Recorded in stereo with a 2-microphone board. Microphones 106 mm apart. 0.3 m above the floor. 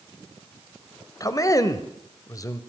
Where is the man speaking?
30° left (ahead or behind), 1.0 m.